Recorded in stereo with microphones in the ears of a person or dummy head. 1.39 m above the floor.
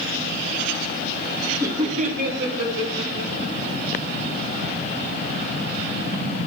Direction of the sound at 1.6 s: 10° right (ahead or behind).